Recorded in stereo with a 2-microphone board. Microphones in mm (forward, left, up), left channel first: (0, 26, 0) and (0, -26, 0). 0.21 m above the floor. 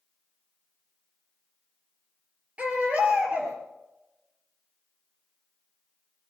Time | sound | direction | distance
2.6 | a baby crying | 25° right (ahead or behind) | 4 m